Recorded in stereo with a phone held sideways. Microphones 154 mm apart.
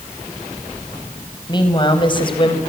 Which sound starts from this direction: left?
A woman speaking, at 1.5 s.